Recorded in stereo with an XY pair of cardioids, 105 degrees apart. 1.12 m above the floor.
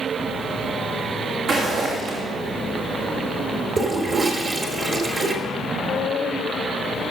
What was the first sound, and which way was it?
Footsteps, 70° right.